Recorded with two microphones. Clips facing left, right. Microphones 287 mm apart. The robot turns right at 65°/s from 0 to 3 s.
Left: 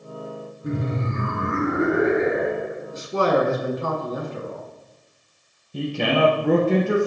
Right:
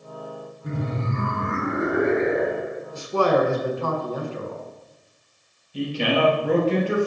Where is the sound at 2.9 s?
20° left (ahead or behind), 1.4 m; by 4.6 s 25° left (ahead or behind), 1.4 m.